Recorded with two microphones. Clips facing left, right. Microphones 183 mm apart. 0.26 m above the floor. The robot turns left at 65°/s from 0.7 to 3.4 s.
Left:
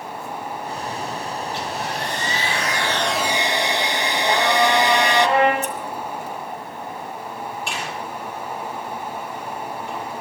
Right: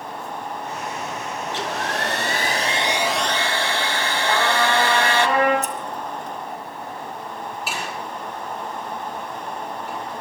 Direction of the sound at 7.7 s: 5° right (ahead or behind).